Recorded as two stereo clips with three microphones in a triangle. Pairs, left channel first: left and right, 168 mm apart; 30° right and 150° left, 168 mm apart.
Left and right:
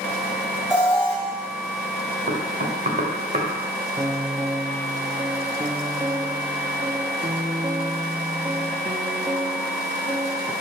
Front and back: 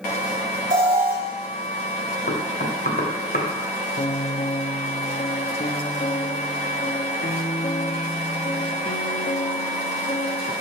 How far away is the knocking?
About 1.8 m.